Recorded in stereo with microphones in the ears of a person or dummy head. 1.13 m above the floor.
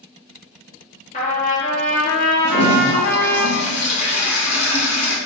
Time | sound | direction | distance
1.1 | a trumpet | 40° left (ahead or behind) | 0.6 m
2.4 | a toilet flushing | 40° left (ahead or behind) | 0.7 m